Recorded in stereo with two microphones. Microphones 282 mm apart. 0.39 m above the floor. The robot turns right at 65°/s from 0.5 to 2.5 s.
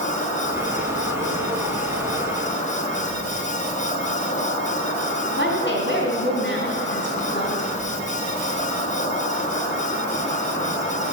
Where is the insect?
30° left, 4 m; by 11.1 s 160° left, 4 m.